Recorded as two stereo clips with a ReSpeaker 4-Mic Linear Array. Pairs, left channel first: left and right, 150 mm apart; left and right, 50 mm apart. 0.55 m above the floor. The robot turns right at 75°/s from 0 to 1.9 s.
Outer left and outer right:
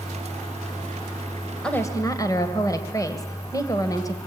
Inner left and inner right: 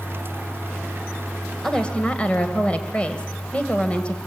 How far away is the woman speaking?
About 2 m.